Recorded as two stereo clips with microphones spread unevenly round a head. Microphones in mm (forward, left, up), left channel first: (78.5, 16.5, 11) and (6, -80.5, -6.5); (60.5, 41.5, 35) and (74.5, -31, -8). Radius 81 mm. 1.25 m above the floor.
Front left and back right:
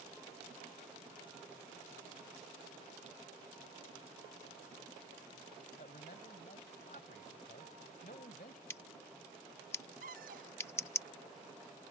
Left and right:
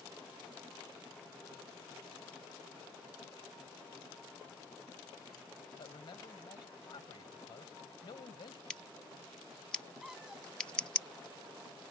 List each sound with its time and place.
5.8 s a man speaking: 100° left
8.7 s scissors: 100° left
10.0 s a cupboard door: 170° right